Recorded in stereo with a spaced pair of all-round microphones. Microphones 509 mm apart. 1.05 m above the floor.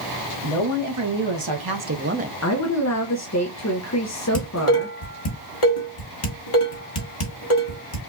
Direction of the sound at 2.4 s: 30° left (ahead or behind).